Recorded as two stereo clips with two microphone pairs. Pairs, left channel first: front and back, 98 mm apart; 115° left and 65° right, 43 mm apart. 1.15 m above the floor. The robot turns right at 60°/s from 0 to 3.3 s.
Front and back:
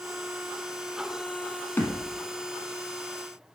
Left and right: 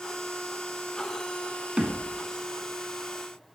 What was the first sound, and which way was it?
A thud, 40° right.